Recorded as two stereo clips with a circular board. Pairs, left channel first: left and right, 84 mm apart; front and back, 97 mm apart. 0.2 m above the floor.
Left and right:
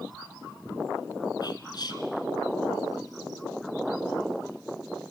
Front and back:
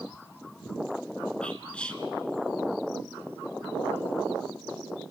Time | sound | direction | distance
1.4 | whispering | 75° left | 2.0 m